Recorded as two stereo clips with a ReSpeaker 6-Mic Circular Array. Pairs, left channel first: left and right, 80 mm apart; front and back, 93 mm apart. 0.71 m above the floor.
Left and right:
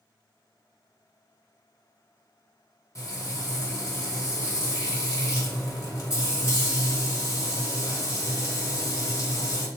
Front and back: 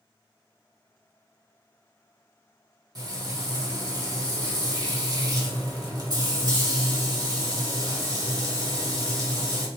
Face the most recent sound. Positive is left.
turn(degrees=140)